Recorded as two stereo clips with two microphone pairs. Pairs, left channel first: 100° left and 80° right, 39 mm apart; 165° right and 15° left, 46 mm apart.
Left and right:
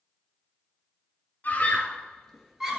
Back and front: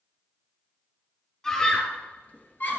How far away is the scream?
About 2 m.